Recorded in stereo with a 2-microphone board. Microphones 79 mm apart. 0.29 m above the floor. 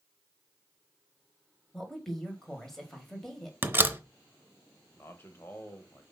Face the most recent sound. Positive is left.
turn(degrees=25)  # may be behind; listen again after turning